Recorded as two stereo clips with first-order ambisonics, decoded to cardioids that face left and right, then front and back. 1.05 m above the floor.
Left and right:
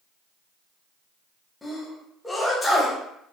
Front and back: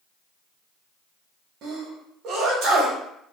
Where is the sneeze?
170° left, 0.9 m.